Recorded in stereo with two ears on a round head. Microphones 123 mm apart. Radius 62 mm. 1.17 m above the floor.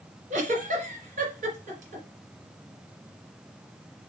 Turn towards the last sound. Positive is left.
turn(degrees=-60)  # may be behind; listen again after turning